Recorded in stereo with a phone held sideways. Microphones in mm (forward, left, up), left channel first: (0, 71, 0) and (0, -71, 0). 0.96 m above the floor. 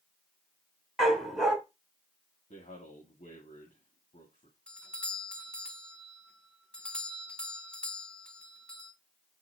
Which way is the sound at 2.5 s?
65° left (ahead or behind).